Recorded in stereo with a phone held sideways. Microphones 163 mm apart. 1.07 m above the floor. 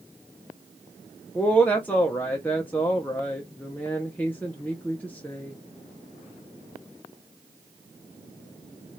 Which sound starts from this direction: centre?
A woman speaking, at 1.4 s.